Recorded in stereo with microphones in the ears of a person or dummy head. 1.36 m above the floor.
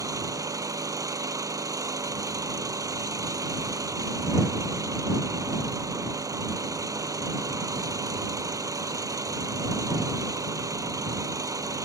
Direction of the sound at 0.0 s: 15° right (ahead or behind).